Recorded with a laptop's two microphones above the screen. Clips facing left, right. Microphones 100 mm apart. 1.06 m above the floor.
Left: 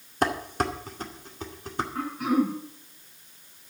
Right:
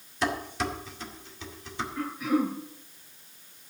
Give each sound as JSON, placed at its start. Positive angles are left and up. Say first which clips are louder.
{"t": 0.2, "sound": "dishes clattering", "louder": "left 3 dB", "side_deg": 45, "distance_m": 2.0}
{"t": 1.9, "sound": "throat clearing", "louder": "left 2 dB", "side_deg": 70, "distance_m": 8.0}